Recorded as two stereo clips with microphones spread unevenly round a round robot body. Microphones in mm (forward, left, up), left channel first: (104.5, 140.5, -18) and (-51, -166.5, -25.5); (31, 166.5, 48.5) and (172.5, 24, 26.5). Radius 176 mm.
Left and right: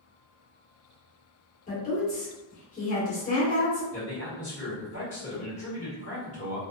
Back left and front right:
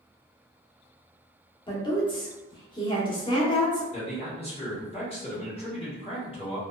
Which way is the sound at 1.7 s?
90° left.